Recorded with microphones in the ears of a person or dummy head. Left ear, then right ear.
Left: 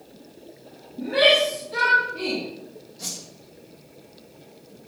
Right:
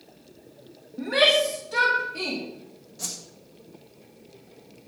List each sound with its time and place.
1.0 s a shout: 60° right (ahead or behind), 2 m; by 2.4 s 70° right (ahead or behind), 3 m
3.0 s a whoosh: 30° right (ahead or behind), 2 m